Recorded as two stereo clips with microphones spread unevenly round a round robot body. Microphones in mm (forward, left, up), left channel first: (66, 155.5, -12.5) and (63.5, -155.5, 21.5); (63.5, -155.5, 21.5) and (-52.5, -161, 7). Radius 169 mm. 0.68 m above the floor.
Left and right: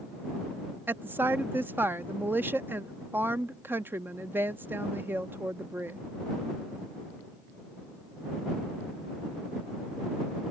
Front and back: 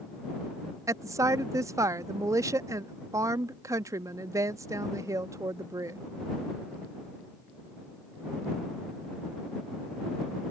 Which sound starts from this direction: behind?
A woman speaking, at 0.9 s.